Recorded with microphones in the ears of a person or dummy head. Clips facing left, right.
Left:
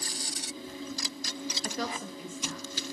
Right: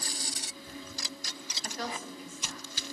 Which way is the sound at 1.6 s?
70° left (ahead or behind).